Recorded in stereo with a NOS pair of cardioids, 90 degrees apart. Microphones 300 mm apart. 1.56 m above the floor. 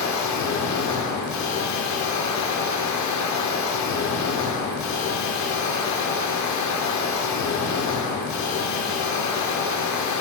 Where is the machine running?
65° left, 0.8 m.